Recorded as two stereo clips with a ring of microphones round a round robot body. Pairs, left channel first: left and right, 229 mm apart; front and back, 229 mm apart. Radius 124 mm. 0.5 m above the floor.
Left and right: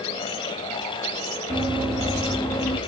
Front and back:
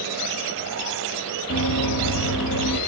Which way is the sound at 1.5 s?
15° right.